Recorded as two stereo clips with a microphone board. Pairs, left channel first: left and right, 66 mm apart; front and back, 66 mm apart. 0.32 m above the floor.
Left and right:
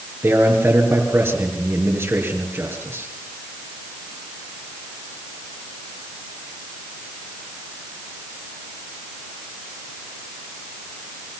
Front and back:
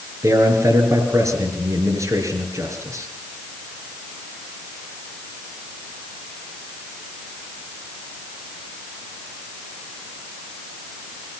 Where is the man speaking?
140° right, 5.5 m.